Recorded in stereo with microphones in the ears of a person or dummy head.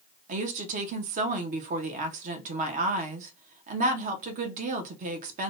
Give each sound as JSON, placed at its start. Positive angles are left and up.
{"t": 0.3, "sound": "a woman speaking", "side_deg": -45, "distance_m": 0.5}